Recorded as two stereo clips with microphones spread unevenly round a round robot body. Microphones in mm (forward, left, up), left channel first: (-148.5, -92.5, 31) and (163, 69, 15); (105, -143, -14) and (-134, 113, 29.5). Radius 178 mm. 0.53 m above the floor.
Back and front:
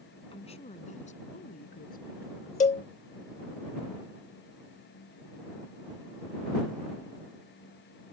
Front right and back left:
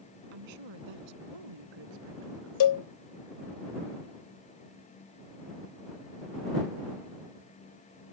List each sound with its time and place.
0.3 s a woman speaking: 135° left; by 2.8 s 145° left
2.6 s a cowbell: 80° right